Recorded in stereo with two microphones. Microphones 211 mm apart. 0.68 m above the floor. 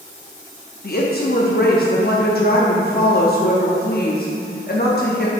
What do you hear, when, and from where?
0.8 s a woman speaking: 50° left (ahead or behind), 0.7 m